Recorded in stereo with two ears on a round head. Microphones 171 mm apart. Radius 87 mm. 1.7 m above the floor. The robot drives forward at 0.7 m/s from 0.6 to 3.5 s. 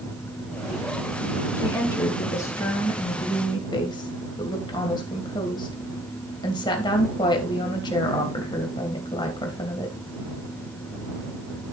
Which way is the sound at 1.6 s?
15° left (ahead or behind).